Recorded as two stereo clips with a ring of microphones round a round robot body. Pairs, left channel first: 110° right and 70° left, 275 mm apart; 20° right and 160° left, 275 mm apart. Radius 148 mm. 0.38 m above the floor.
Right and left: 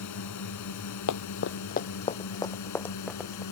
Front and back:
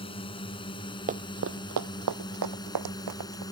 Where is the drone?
95° right; by 3.5 s 100° right.